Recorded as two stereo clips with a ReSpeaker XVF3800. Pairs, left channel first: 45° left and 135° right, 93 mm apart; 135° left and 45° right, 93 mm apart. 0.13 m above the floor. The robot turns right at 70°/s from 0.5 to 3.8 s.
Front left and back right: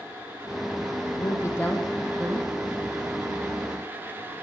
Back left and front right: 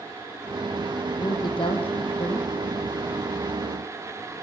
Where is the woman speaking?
80° left, 5.5 m; by 2.6 s 175° right, 5.5 m.